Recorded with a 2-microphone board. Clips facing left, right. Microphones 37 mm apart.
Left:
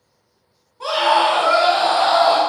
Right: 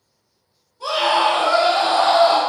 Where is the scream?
35° left (ahead or behind), 1.1 m; by 2.4 s 5° left (ahead or behind), 1.0 m.